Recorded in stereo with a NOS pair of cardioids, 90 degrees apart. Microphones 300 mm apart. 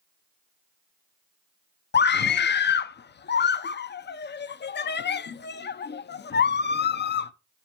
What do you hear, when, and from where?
1.9 s a scream: 35° left, 0.8 m